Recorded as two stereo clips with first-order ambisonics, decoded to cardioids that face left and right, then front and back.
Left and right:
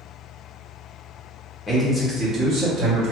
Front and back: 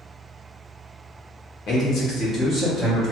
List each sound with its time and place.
1.7 s a man speaking: 15° left, 0.9 m; by 3.1 s 80° right, 1.3 m